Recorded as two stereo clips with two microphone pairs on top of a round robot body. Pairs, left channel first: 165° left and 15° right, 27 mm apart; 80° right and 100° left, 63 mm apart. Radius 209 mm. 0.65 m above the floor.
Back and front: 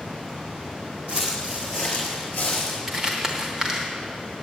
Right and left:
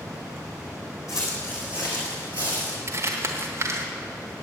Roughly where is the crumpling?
Ahead left.